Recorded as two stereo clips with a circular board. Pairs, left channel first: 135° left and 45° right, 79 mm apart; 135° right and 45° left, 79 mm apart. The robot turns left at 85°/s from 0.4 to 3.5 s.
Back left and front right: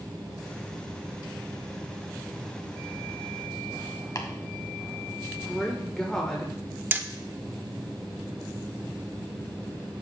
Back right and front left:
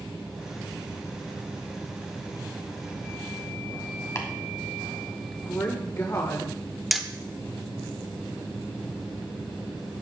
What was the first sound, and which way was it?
Chopping, 175° left.